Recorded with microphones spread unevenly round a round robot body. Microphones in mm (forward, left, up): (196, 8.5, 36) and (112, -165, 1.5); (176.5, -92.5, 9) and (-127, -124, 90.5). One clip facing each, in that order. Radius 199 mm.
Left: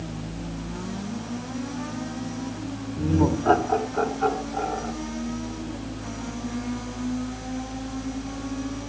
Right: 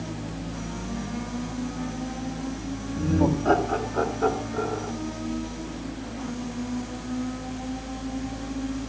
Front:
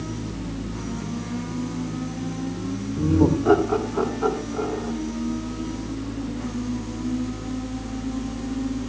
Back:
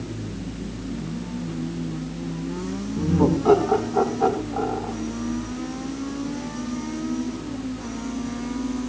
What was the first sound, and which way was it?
Laughter, 175° right.